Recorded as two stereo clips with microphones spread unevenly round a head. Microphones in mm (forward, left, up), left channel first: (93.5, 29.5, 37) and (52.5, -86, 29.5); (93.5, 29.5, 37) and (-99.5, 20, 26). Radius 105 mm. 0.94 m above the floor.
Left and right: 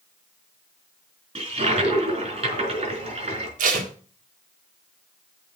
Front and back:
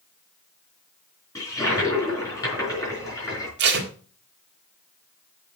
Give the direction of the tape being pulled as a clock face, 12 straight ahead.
5 o'clock.